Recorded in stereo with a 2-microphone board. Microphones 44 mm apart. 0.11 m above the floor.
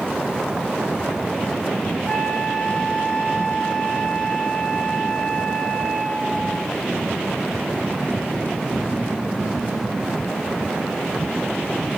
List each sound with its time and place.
2.1 s a flute: 30° left (ahead or behind), 1.6 m